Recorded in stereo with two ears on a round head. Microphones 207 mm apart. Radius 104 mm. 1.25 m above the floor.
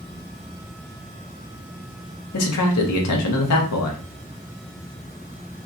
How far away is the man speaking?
About 0.8 m.